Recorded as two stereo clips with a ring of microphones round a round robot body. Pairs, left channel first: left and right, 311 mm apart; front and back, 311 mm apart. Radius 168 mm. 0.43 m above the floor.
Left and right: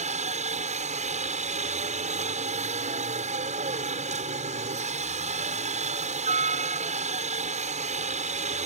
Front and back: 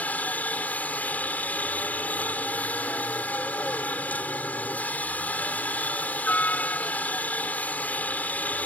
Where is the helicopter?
75° right.